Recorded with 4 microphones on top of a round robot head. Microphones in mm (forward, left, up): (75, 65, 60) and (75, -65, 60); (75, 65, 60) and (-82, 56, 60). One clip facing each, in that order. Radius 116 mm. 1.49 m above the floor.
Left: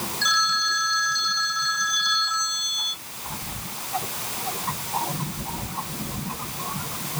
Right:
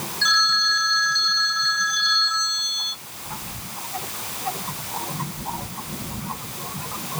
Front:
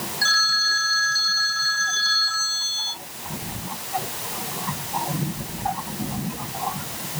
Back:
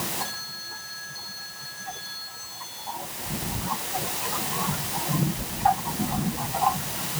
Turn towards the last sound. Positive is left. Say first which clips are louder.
# right 2 dB, front 6 dB
turn(degrees=10)